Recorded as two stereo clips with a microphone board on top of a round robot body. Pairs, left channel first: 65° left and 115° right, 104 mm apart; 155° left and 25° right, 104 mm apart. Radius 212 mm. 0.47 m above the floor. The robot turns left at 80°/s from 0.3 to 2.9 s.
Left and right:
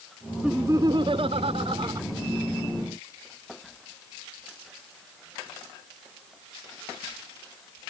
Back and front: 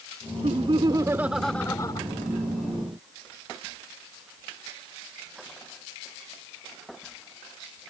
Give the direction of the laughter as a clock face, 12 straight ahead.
1 o'clock.